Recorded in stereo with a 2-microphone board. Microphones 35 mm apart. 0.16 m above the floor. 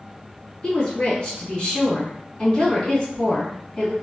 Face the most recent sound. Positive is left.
turn(degrees=30)  # may be behind; listen again after turning